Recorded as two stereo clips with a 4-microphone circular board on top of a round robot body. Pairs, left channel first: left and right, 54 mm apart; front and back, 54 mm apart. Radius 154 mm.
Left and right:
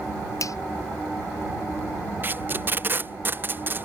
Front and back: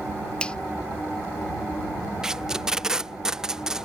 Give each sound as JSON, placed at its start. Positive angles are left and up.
{"t": 0.4, "sound": "a finger snap", "azimuth_deg": 70}
{"t": 2.2, "sound": "tape being pulled", "azimuth_deg": -105}